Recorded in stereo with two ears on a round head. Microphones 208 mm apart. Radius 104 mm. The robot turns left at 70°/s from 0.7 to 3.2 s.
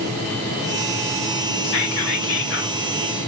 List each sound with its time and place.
1.6 s whispering: 115° left, 2.5 m; by 2.8 s 35° left, 2.5 m